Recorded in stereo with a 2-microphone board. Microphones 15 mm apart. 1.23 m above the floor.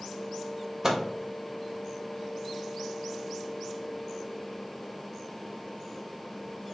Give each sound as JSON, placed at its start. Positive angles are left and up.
{"t": 0.8, "sound": "a microwave", "side_deg": -30, "distance_m": 0.6}